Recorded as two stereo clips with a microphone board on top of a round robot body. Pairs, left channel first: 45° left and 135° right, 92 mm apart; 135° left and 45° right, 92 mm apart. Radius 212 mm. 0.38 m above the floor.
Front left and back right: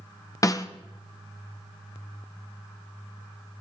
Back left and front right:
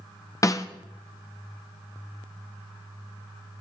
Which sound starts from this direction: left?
A snare drum, at 0.4 s.